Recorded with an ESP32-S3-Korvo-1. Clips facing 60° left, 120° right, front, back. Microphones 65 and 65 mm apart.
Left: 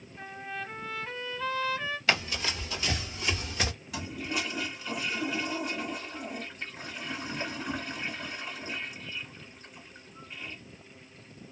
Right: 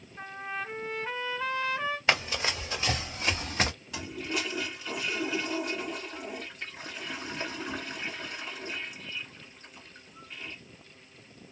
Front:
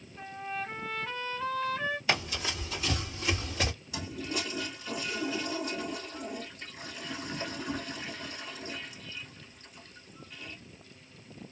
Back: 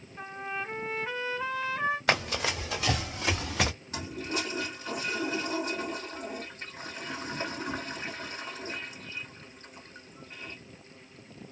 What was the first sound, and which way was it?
A trumpet, 160° right.